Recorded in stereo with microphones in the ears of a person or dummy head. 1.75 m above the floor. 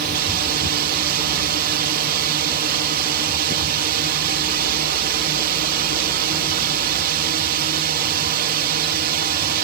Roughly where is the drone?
Right.